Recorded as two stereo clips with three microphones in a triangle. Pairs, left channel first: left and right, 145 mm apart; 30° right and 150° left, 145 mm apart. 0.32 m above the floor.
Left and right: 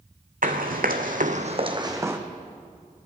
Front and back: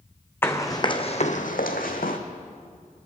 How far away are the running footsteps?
About 1.5 m.